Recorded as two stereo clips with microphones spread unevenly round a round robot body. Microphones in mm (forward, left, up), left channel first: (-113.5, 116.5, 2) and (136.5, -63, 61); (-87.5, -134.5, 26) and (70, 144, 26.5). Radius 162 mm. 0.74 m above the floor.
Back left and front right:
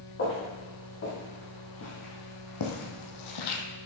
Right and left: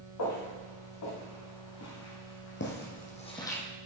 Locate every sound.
0.2 s footsteps: 155° right, 4.5 m; by 3.6 s 155° left, 1.5 m